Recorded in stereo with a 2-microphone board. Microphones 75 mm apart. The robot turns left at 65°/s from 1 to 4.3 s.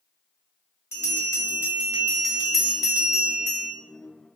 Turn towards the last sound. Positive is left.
turn(degrees=-115)